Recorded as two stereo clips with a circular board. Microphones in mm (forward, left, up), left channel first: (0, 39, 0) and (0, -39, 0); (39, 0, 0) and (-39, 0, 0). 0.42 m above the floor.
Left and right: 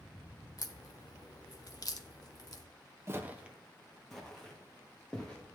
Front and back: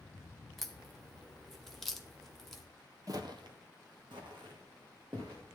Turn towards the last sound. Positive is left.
turn(degrees=165)